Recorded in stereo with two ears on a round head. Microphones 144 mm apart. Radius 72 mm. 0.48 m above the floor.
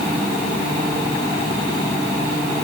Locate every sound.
Only background noise.